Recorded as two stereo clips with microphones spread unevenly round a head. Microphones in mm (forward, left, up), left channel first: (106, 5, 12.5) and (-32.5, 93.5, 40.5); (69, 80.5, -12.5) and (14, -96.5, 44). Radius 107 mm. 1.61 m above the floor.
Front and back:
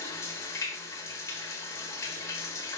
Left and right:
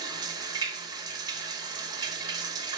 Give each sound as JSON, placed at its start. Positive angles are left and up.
{"t": 0.0, "sound": "running water", "azimuth_deg": -115, "distance_m": 0.9}